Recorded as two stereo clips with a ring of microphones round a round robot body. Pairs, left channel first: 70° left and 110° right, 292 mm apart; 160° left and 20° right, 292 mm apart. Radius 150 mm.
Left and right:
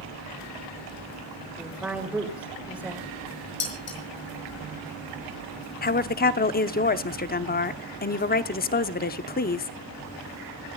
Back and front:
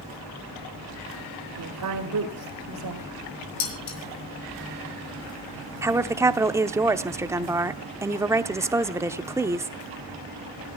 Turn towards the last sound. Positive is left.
turn(degrees=50)